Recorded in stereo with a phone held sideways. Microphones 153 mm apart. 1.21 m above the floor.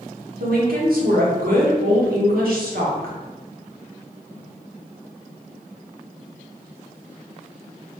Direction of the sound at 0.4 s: 75° right (ahead or behind).